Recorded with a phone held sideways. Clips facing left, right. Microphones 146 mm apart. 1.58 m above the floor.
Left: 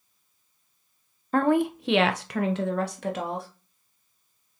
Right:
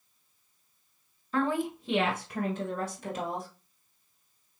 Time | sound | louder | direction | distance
1.3 | a woman speaking | left 7 dB | 50° left (ahead or behind) | 0.6 m